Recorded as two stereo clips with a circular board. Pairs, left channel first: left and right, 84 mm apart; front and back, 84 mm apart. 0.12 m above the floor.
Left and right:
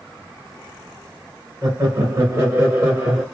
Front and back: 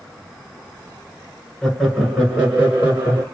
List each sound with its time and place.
1.6 s laughter: 80° right, 1.4 m; by 3.2 s 140° right, 1.5 m